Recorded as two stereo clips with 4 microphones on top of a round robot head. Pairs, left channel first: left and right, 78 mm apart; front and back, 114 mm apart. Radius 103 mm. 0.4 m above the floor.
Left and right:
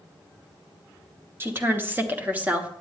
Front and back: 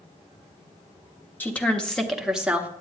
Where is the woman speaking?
65° right, 1.5 m; by 2.7 s 130° right, 1.3 m.